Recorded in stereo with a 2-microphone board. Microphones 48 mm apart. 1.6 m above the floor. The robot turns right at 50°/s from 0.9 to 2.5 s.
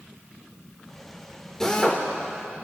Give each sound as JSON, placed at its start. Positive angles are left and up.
{"t": 1.6, "sound": "a drill", "side_deg": 15, "distance_m": 2.0}